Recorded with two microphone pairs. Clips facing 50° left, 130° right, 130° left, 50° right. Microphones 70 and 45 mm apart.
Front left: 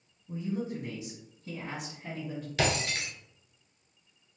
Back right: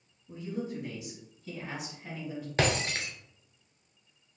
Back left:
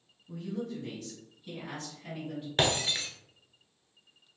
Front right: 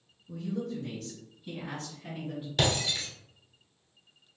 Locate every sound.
0.3 s a woman speaking: 110° left, 1.4 m; by 2.5 s 35° left, 2 m
2.6 s breaking glass: 175° right, 1.0 m